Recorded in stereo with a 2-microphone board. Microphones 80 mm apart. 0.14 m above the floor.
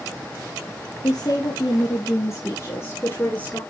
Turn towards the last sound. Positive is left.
turn(degrees=20)  # may be behind; listen again after turning